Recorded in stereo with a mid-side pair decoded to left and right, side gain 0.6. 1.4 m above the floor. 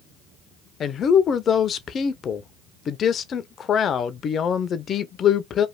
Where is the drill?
No drill in this recording.